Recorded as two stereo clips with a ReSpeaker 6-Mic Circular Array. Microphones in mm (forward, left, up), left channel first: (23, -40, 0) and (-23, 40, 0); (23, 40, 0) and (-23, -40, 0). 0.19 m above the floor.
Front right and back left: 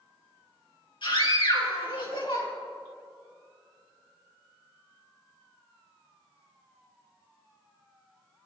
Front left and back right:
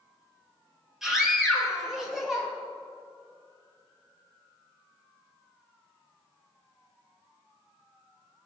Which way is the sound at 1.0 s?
35° right.